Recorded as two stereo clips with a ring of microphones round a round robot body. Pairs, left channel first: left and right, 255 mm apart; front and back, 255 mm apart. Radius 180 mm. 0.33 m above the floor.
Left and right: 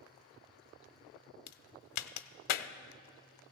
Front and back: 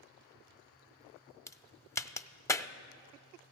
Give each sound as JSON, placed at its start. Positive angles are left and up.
{"t": 1.5, "sound": "a crack", "azimuth_deg": 80, "distance_m": 0.5}